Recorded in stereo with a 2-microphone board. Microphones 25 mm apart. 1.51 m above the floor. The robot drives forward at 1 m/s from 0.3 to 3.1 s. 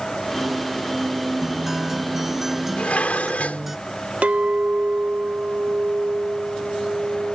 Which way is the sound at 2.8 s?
75° left (ahead or behind).